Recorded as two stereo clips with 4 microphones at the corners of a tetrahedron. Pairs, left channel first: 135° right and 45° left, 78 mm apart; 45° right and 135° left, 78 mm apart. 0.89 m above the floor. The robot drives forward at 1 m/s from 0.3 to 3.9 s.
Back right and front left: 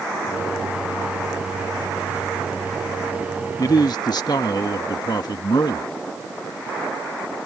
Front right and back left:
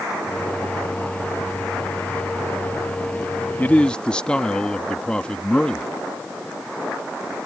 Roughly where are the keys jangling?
I don't hear keys jangling.